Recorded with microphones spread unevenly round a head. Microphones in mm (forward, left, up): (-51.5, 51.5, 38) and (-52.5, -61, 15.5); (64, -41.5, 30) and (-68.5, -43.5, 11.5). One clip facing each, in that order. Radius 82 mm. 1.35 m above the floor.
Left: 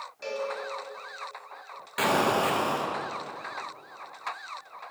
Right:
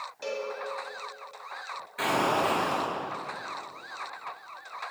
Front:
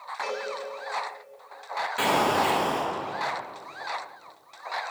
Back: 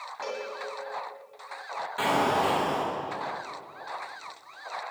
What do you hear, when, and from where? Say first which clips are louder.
0.2 s a cowbell: left 1 dB, front 2 dB; 175° right, 2.0 m
2.0 s an explosion: left 2 dB, front 1 dB; 85° left, 1.1 m